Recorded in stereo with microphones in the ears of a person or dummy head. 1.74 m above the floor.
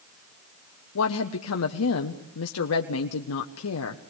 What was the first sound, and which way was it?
A woman speaking, 80° left.